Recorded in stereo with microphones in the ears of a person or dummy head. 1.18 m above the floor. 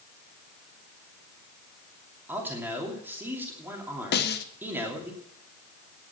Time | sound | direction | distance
2.3 | a man speaking | 10° right (ahead or behind) | 2.5 m
4.1 | a snare drum | 40° left (ahead or behind) | 0.9 m